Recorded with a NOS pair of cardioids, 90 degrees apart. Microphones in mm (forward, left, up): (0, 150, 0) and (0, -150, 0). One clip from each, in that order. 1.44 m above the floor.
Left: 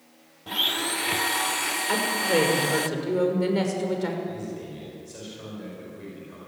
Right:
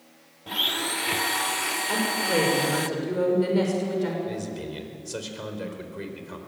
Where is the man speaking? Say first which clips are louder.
Right 2 dB; 70° right, 4.5 m.